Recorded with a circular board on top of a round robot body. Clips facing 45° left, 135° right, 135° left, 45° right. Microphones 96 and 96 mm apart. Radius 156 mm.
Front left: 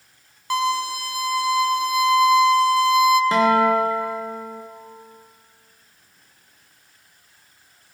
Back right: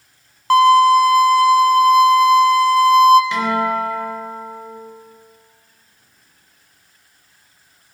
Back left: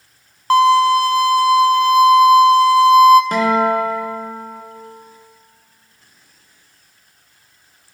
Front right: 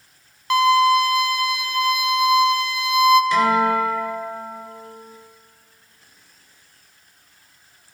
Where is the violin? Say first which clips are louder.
Back right 13 dB, back left 4 dB; 170° right, 0.6 m.